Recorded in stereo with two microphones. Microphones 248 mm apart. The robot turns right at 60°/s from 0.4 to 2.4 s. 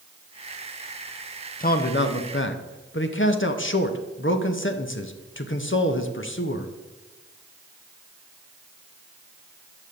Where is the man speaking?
45° left, 0.7 m; by 6.7 s 95° left, 0.7 m.